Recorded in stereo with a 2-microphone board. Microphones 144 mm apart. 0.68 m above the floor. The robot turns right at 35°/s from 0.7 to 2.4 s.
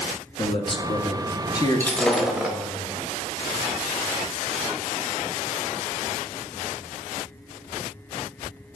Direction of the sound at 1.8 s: 15° left (ahead or behind).